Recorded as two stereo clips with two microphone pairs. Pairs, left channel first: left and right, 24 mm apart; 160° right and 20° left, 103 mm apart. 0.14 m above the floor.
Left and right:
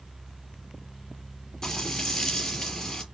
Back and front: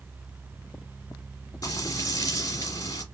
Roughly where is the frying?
Behind left.